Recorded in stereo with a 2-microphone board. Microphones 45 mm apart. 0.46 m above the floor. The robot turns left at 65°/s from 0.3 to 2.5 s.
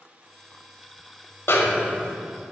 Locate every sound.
1.5 s a snare drum: 75° left, 0.9 m; by 2.2 s 30° left, 0.9 m